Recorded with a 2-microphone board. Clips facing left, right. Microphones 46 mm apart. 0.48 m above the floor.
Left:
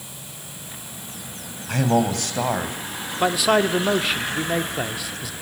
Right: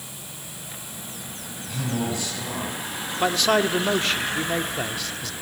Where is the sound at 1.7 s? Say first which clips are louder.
Left 8 dB; 65° left (ahead or behind), 3.5 m.